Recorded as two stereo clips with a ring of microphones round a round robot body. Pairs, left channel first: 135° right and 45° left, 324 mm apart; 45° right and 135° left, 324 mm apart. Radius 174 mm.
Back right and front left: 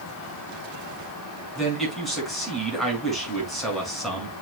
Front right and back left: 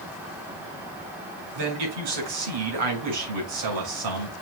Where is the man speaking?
135° left, 6 m.